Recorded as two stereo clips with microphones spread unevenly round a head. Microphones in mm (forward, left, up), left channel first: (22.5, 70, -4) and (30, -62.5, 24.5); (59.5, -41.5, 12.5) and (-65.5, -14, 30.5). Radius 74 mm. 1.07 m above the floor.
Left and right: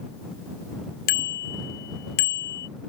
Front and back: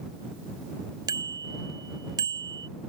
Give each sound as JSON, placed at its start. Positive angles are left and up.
{"t": 1.1, "sound": "a bicycle bell", "azimuth_deg": 105}